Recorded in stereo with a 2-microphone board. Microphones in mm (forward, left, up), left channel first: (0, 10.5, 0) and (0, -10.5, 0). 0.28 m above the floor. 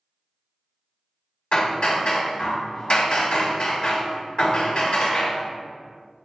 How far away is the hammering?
About 1.0 m.